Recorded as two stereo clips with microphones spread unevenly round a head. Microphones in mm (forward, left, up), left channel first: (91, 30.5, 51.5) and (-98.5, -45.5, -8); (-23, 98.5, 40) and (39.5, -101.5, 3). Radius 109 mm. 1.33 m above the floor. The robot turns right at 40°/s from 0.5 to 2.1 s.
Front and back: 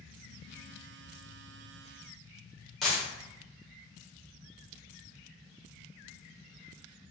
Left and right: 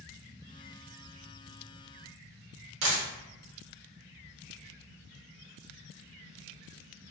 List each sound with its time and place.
2.8 s a dropped coin: 50° right, 0.8 m